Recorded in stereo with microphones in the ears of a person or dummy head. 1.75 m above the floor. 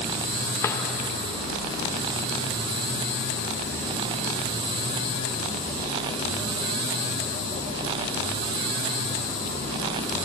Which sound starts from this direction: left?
A drawer, at 0.6 s.